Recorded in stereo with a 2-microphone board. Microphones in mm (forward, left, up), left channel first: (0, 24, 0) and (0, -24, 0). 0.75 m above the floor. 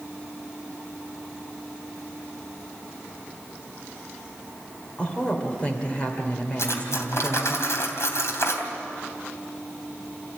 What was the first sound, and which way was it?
A woman speaking, 25° left (ahead or behind).